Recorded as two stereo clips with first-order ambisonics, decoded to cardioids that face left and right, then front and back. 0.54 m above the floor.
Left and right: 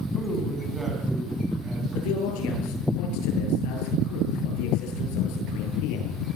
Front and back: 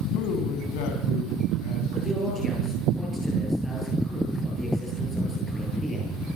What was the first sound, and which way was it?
A man speaking, 5° left.